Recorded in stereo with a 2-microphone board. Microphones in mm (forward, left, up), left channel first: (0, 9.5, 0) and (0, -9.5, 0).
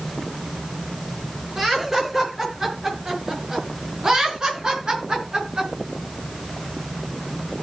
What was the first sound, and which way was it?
Laughter, 15° right (ahead or behind).